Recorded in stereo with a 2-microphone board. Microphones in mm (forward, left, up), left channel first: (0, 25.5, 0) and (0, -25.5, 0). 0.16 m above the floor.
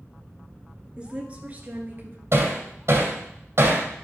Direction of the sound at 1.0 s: 20° right (ahead or behind).